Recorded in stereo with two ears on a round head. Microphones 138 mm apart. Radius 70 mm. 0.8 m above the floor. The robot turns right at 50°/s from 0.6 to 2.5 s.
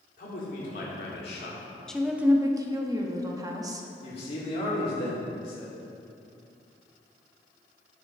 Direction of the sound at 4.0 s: 40° left (ahead or behind).